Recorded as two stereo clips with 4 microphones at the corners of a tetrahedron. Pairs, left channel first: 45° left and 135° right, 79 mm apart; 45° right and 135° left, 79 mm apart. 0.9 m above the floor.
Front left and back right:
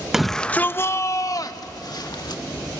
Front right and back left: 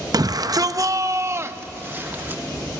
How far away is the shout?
About 0.6 m.